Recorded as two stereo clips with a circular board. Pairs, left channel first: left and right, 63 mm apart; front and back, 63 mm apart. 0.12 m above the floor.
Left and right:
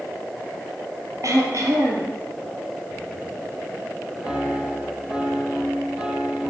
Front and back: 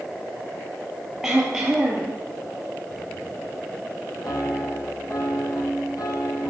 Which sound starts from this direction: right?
Throat clearing, at 1.2 s.